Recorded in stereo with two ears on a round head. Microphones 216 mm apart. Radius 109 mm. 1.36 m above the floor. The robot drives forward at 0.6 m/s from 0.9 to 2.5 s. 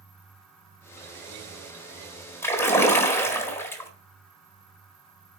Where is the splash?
10° left (ahead or behind), 1.5 m.